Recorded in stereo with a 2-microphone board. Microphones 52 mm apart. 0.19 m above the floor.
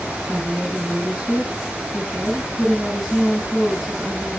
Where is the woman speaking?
10° right (ahead or behind), 2 m.